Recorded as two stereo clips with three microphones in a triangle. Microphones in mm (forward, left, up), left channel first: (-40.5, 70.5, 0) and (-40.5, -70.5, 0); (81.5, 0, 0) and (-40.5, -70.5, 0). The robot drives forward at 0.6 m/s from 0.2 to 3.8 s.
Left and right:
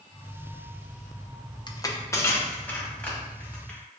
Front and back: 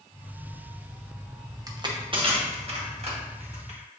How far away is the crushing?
About 0.5 m.